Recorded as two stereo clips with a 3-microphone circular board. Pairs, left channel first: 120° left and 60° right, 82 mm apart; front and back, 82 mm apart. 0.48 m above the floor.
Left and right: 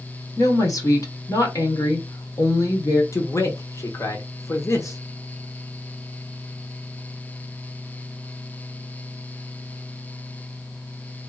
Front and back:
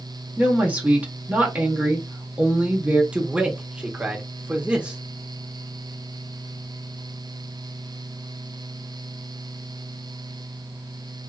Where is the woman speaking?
115° left, 1.5 m.